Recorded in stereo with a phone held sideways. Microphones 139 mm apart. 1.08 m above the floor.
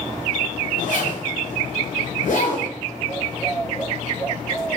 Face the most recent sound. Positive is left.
turn(degrees=65)  # may be behind; listen again after turning